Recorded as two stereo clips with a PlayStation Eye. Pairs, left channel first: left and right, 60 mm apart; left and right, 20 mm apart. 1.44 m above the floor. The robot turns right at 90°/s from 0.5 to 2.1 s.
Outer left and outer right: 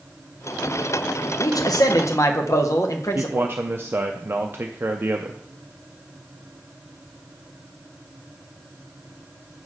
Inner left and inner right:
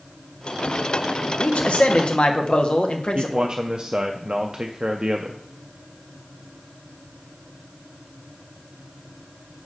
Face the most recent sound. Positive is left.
turn(degrees=-35)  # may be behind; listen again after turning